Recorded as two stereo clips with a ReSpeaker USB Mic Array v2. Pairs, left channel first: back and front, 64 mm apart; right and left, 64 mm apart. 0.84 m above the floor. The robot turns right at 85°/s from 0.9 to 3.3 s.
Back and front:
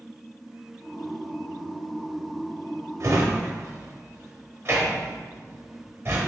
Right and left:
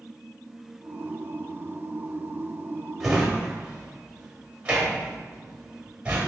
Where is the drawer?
5° left, 0.8 m; by 6.3 s 30° left, 0.8 m.